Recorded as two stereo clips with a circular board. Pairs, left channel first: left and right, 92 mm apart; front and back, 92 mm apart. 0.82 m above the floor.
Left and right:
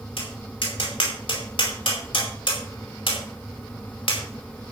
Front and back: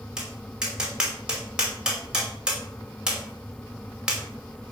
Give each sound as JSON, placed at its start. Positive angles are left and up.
{"t": 0.2, "sound": "tapping", "azimuth_deg": 100, "distance_m": 4.5}